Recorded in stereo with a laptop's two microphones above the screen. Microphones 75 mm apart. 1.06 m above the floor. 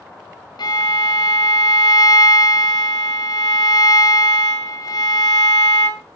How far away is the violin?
About 1.4 m.